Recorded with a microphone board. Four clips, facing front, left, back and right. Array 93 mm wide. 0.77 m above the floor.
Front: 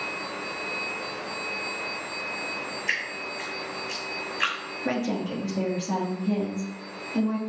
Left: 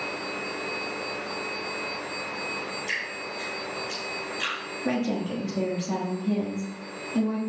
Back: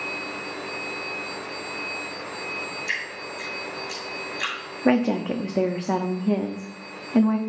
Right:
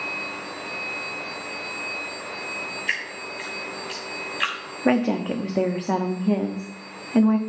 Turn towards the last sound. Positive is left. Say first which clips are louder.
# right 6 dB, back 7 dB
turn(degrees=-130)